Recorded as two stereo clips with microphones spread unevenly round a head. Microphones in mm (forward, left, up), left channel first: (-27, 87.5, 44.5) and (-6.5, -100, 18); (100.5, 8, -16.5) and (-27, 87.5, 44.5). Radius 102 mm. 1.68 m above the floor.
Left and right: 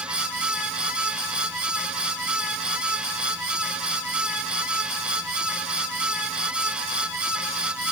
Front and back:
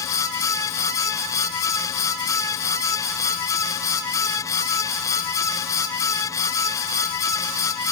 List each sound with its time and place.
Only background noise.